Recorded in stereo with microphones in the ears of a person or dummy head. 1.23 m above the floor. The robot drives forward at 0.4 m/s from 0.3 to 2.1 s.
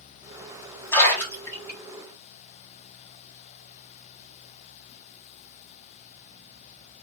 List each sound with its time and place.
0.9 s a splash: 15° left (ahead or behind), 1.8 m